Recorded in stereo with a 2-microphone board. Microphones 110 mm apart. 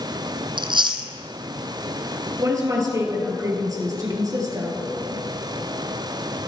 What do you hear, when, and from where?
0.6 s chewing: 50° right (ahead or behind), 0.7 m
2.4 s a woman speaking: 35° right (ahead or behind), 2 m